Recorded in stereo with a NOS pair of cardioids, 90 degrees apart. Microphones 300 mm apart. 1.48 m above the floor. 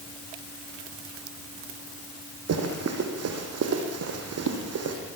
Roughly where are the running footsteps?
Ahead right.